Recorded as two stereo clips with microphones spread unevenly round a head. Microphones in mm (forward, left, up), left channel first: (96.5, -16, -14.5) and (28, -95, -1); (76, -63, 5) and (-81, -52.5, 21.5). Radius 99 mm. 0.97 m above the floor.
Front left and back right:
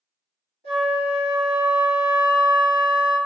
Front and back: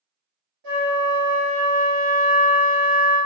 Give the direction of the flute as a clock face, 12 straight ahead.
6 o'clock.